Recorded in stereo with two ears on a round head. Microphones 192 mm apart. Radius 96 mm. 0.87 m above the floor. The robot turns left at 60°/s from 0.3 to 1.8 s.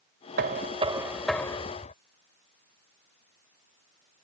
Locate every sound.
0.4 s knocking: 130° right; by 1.9 s 145° left